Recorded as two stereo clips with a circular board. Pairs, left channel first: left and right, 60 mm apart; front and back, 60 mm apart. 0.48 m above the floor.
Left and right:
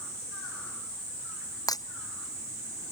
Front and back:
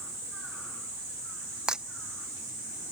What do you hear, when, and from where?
1.7 s breaking glass: 100° left